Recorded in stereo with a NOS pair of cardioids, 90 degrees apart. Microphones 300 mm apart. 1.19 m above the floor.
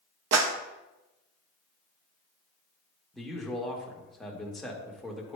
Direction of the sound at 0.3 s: 60° right.